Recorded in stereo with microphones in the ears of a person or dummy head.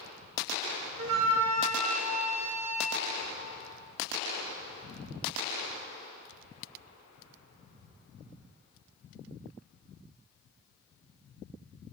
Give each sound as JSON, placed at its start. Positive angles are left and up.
{"t": 1.0, "sound": "a flute", "side_deg": -70, "distance_m": 1.2}